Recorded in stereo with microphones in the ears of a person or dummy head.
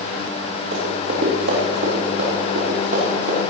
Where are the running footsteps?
45° right (ahead or behind), 3.5 m.